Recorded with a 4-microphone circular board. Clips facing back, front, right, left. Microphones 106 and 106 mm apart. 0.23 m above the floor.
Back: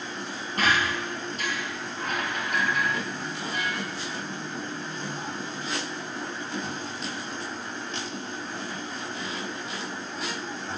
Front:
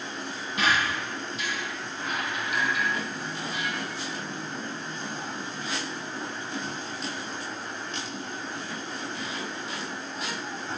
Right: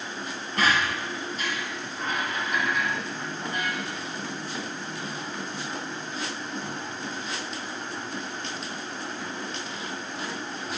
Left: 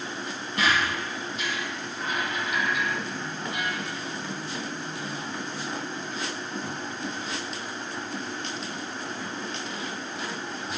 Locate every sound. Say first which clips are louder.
0.6 s a squeak: back 1 dB, right 1 dB; 140° right, 1.8 m